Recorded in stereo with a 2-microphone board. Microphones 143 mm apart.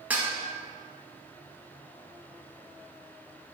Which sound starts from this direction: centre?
Dishes clattering, at 0.1 s.